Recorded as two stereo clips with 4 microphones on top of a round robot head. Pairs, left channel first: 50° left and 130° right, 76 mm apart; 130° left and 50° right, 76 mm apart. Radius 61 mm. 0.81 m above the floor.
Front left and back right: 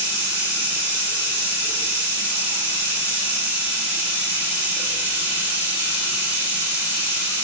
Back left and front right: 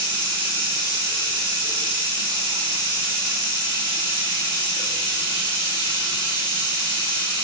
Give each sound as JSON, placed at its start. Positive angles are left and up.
{"t": 0.0, "sound": "running water", "azimuth_deg": -65, "distance_m": 5.5}